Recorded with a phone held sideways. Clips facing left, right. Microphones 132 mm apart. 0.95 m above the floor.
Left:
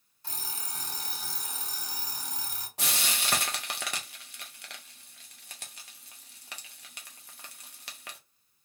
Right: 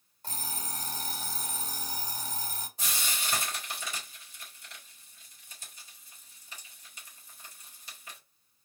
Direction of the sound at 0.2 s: 45° right (ahead or behind).